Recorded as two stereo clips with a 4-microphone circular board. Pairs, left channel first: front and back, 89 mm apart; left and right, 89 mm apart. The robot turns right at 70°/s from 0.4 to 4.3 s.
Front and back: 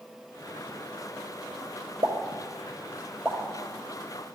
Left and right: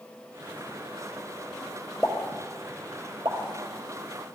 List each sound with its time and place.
2.0 s a pop: straight behind, 1.1 m; by 3.4 s 85° right, 1.1 m